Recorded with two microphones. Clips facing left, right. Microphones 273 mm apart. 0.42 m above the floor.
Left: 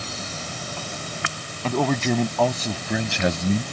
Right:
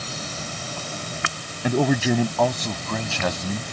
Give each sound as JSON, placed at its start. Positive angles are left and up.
{"t": 1.6, "sound": "a man speaking", "side_deg": -15}